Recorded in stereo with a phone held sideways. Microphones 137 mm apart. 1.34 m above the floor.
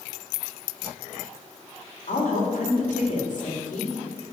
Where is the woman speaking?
70° left (ahead or behind), 3 m.